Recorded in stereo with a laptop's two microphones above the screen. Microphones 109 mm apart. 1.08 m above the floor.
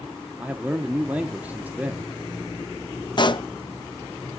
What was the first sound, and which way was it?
A man speaking, 15° right (ahead or behind).